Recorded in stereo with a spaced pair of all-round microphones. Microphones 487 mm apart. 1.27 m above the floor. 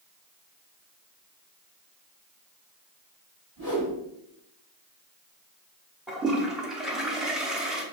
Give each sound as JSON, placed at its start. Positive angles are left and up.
{"t": 3.6, "sound": "a whoosh", "side_deg": -40, "distance_m": 2.0}
{"t": 6.1, "sound": "a toilet flushing", "side_deg": 0, "distance_m": 0.8}